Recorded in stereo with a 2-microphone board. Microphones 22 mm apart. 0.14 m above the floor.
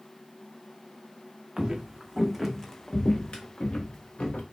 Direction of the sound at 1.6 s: 35° right (ahead or behind).